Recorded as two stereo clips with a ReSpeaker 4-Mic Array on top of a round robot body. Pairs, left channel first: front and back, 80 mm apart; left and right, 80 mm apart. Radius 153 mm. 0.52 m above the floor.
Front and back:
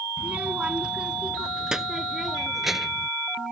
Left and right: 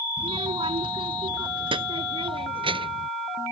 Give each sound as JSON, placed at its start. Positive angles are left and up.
{"t": 0.2, "sound": "a child speaking", "azimuth_deg": -105}